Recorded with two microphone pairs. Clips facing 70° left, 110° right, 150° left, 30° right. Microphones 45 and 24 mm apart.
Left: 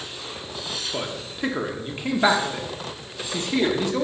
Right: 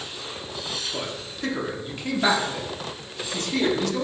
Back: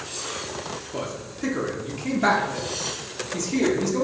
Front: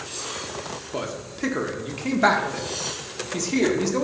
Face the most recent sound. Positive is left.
turn(degrees=20)